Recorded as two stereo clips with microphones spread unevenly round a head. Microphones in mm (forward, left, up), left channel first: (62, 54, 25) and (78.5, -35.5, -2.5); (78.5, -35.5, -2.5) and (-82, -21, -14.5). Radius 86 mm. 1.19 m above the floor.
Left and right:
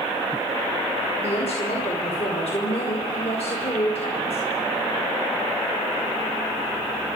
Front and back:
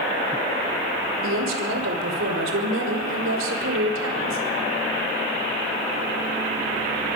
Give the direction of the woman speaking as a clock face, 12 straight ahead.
7 o'clock.